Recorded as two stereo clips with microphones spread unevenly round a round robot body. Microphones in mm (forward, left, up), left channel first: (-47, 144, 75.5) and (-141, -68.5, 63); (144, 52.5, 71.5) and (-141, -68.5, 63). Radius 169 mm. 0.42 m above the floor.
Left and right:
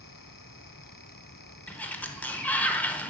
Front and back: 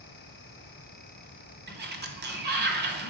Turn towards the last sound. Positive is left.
turn(degrees=150)